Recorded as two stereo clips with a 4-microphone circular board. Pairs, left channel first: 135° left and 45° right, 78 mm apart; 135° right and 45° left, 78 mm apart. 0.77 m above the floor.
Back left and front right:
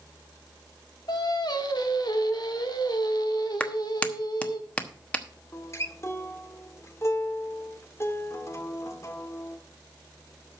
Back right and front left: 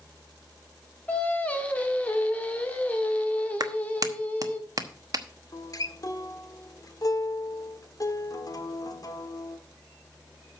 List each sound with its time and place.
1.1 s singing: 155° left, 1.4 m
3.6 s a clap: 65° left, 1.1 m
5.5 s a guitar: 175° right, 1.2 m